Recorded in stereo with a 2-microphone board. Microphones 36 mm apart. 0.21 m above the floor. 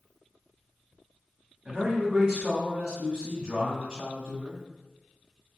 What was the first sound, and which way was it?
A man speaking, 20° right (ahead or behind).